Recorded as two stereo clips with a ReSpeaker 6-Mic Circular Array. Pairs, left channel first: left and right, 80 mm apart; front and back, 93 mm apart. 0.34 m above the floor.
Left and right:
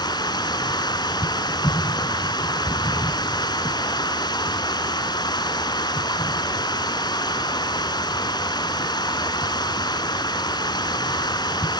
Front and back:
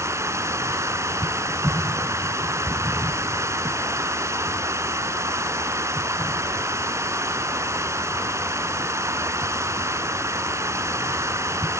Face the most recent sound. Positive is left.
turn(degrees=120)